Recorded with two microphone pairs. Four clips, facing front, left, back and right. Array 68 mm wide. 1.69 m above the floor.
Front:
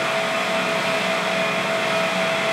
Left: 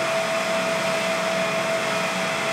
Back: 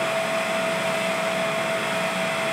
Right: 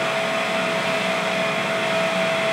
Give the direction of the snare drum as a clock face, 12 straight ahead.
I don't hear a snare drum.